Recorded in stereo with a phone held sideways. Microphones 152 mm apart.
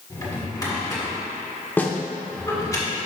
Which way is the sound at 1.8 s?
15° left (ahead or behind).